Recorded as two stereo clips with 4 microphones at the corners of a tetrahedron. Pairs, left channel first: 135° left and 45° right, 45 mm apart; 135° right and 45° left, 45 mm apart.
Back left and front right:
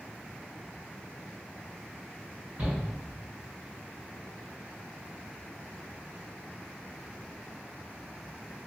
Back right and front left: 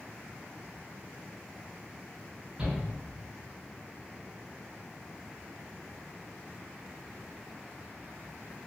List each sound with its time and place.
2.6 s a shout: 20° right, 1.9 m